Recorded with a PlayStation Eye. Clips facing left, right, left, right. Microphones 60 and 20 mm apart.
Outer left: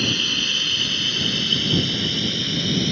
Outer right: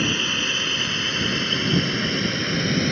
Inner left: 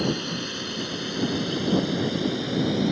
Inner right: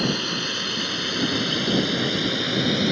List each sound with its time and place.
0.0 s a drone: 25° right (ahead or behind); by 2.9 s 45° right (ahead or behind)